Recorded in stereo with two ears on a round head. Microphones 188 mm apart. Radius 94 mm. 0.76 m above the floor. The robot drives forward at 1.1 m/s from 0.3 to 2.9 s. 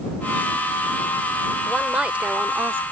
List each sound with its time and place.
1.7 s a woman speaking: 5° right (ahead or behind); by 2.8 s 10° right (ahead or behind)